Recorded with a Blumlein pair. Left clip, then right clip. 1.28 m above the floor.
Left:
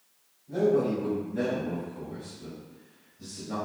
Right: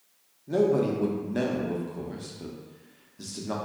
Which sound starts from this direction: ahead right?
A man speaking, at 0.5 s.